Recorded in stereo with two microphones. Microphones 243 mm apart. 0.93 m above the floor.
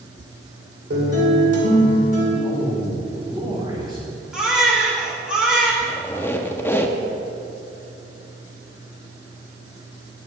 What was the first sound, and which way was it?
A guitar, 70° right (ahead or behind).